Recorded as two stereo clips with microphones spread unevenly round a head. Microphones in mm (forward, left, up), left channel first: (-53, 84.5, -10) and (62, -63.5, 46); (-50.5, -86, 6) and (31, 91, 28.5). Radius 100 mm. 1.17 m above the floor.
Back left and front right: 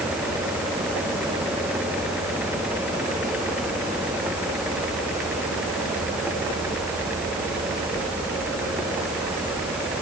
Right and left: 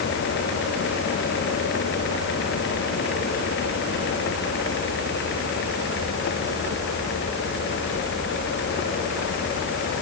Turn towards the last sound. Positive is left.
No sound to turn to.